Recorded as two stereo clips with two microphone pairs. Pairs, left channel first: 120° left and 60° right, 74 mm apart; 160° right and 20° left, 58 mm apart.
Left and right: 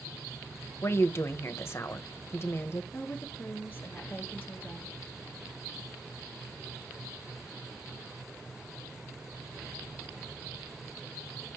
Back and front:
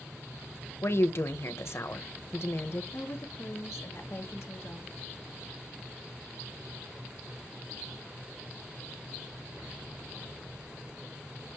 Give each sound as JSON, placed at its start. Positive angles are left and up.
{"t": 0.8, "sound": "a woman speaking", "azimuth_deg": 175, "distance_m": 1.0}
{"t": 2.9, "sound": "a woman speaking", "azimuth_deg": 180, "distance_m": 1.8}